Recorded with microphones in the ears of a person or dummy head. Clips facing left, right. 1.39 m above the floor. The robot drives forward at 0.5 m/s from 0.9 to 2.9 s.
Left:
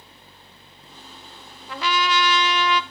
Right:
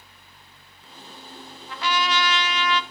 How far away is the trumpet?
About 0.8 m.